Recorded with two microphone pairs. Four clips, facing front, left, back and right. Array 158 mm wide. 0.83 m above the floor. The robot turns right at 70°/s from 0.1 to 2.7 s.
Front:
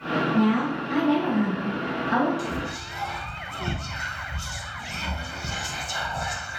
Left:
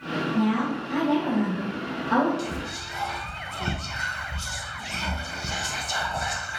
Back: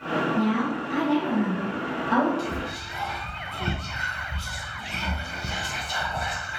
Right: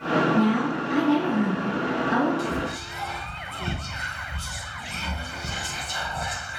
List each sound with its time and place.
0.3 s a woman speaking: 10° right, 1.4 m; by 2.3 s 125° left, 1.4 m
2.4 s whispering: 80° left, 0.7 m; by 6.6 s 100° left, 0.7 m